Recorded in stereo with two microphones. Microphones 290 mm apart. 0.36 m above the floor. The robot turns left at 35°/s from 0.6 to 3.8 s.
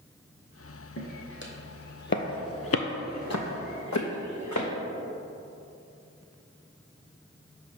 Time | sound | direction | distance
1.0 | footsteps | 50° left (ahead or behind) | 1.2 m